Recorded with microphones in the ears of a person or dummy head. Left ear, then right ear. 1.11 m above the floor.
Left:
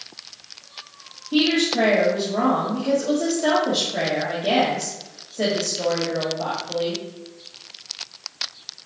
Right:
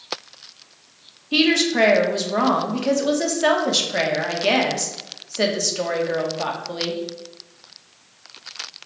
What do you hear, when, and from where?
1.3 s a woman speaking: 65° right (ahead or behind), 2 m